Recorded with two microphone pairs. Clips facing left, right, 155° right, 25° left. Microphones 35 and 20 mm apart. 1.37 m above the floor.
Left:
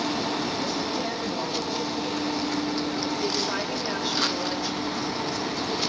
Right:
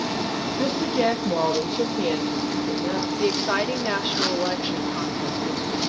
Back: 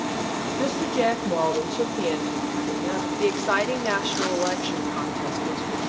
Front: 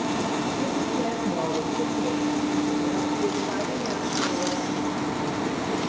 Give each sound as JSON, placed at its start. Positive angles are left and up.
{"t": 0.6, "sound": "a woman speaking", "azimuth_deg": -130, "distance_m": 1.5}
{"t": 3.2, "sound": "a woman speaking", "azimuth_deg": -140, "distance_m": 2.5}